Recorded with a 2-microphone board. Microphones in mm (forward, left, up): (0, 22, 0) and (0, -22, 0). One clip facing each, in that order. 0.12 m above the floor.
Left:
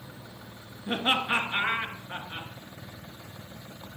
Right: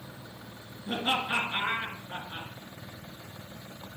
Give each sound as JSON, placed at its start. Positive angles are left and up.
{"t": 0.9, "sound": "laughter", "side_deg": 35, "distance_m": 2.0}